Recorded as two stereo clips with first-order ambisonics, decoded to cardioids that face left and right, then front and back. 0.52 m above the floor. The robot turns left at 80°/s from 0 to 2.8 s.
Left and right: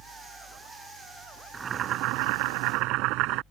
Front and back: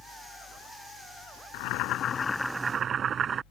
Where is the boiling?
15° right; by 3.4 s 115° right.